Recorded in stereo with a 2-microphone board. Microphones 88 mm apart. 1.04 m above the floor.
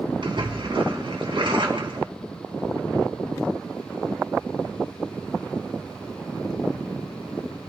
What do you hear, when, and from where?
0.2 s a splash: 65° right (ahead or behind), 2.5 m